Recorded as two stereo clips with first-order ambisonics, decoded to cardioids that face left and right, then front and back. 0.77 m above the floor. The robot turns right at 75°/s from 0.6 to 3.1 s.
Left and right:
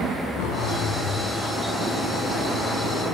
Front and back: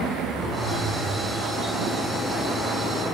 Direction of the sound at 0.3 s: 110° left.